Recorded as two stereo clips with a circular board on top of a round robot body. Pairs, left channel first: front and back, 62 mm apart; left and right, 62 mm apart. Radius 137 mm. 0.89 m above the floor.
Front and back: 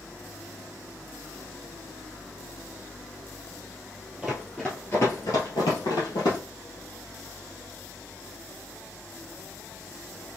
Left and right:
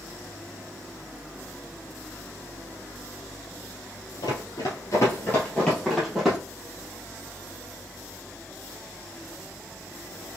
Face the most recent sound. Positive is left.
turn(degrees=-5)